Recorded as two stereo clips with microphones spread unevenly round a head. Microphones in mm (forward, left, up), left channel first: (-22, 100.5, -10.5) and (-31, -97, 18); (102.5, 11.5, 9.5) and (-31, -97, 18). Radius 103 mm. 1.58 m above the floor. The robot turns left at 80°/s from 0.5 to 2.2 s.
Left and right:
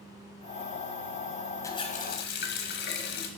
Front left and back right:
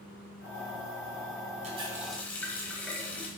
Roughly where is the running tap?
Behind.